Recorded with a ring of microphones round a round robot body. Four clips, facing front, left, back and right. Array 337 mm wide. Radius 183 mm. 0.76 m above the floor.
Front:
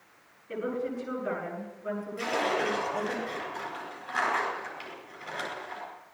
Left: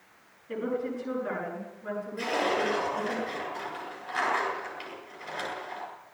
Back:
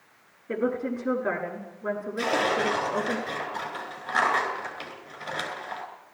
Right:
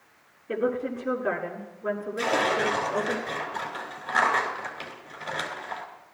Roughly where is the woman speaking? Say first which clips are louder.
Right 4 dB, back 5 dB; behind right.